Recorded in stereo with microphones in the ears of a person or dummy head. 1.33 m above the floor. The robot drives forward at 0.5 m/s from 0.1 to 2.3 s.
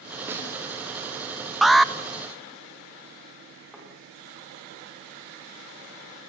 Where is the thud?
Centre (ahead or behind), 9.5 m.